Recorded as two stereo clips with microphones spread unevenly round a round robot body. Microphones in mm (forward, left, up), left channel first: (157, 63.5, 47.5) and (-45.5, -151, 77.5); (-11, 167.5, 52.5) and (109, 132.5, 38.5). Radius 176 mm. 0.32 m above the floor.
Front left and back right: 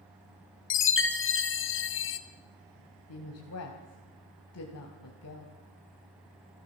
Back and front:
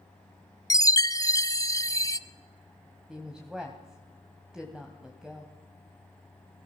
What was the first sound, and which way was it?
A chime, 95° left.